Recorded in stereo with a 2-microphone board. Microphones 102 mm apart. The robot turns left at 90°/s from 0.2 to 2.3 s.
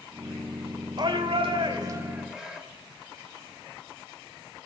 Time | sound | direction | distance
1.0 | a shout | 55° right | 1.6 m